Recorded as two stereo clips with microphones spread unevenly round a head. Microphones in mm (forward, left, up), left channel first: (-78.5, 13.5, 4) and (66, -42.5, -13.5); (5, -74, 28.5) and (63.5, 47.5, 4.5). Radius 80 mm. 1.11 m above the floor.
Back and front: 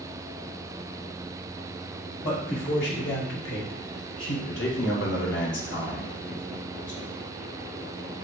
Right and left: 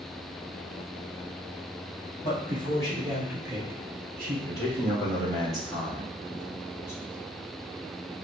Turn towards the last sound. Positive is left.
turn(degrees=170)